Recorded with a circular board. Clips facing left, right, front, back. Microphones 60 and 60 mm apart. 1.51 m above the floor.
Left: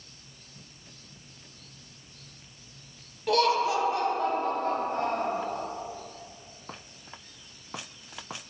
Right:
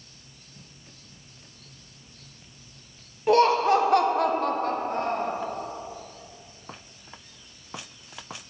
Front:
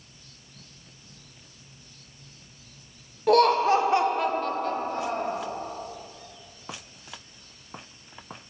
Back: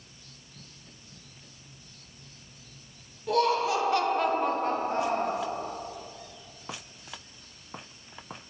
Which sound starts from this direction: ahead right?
Laughter, at 3.3 s.